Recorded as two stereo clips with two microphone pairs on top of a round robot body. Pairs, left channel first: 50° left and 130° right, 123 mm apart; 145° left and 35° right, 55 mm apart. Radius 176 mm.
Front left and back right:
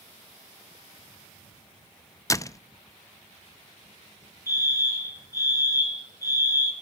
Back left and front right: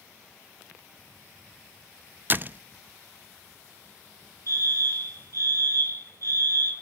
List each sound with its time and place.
2.3 s a door slam: 15° left, 0.8 m
4.5 s a fire alarm: 10° right, 6 m